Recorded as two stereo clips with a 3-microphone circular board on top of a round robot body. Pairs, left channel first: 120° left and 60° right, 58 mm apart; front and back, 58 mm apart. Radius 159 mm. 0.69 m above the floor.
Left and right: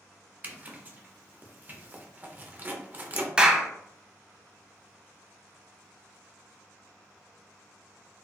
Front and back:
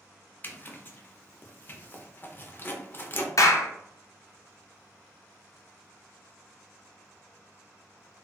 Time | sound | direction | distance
0.4 | a zipper | 25° right | 0.8 m
3.4 | a clap | 15° left | 0.7 m